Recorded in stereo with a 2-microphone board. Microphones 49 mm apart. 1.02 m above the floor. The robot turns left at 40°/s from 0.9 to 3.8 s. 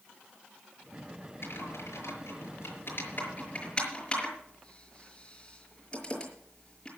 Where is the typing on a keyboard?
65° left (ahead or behind), 6 m; by 6.9 s 20° left (ahead or behind), 6 m.